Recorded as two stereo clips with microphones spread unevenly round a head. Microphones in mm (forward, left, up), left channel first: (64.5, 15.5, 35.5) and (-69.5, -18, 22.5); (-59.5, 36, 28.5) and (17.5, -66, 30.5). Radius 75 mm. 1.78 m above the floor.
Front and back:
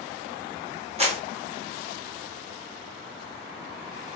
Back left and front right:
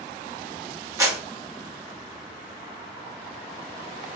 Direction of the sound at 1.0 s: 115° right.